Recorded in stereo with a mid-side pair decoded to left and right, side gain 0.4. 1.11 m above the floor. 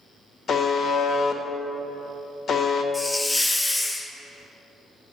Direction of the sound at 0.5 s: 55° left.